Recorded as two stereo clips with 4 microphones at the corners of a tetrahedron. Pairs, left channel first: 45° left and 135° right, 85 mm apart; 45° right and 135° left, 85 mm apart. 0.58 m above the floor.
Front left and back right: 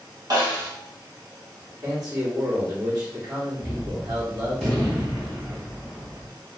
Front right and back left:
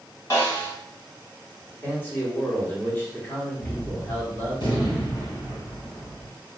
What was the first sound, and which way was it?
A snare drum, 95° right.